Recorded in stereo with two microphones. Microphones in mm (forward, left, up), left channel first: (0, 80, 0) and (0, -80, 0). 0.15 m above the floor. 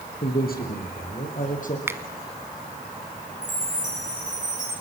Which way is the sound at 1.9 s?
15° right (ahead or behind).